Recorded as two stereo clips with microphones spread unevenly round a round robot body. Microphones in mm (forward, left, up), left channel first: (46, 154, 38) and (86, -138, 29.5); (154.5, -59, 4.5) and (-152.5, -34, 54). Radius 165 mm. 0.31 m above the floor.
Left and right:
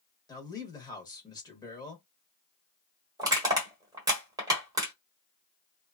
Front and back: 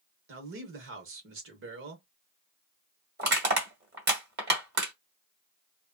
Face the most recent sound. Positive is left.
turn(degrees=-145)